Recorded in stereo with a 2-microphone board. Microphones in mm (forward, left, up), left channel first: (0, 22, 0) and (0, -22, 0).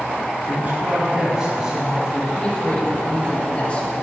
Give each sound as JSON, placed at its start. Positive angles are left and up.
{"t": 0.5, "sound": "a man speaking", "side_deg": -45, "distance_m": 2.0}
{"t": 2.4, "sound": "a man speaking", "side_deg": 25, "distance_m": 3.5}